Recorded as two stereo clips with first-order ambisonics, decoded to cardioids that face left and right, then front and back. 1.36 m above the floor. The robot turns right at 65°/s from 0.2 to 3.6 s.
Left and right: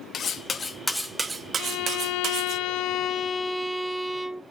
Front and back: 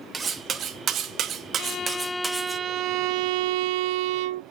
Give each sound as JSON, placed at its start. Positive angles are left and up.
{"t": 0.1, "sound": "cutlery clinking", "azimuth_deg": 125, "distance_m": 0.7}
{"t": 1.6, "sound": "a violin", "azimuth_deg": 50, "distance_m": 0.5}